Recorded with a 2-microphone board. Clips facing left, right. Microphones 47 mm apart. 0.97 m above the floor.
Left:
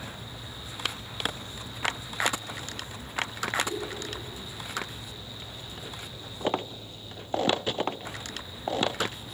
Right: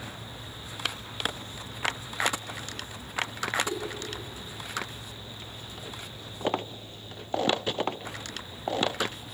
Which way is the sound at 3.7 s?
15° right (ahead or behind).